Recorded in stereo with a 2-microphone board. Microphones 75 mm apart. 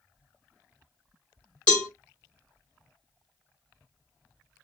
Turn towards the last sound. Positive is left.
turn(degrees=15)  # may be behind; listen again after turning